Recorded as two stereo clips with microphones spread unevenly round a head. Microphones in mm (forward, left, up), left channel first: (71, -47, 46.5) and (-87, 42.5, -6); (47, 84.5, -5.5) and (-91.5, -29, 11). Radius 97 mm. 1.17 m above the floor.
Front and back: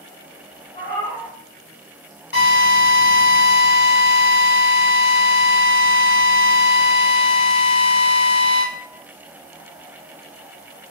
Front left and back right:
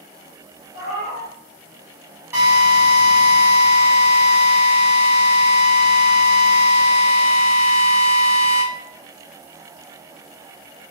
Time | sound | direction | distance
0.7 | a cat meowing | 75° right | 1.6 m
2.3 | a drill | 60° right | 1.0 m